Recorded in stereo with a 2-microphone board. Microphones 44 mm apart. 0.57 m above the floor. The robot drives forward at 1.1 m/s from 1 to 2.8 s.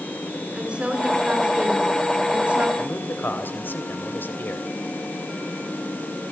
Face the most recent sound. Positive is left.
turn(degrees=50)  # may be behind; listen again after turning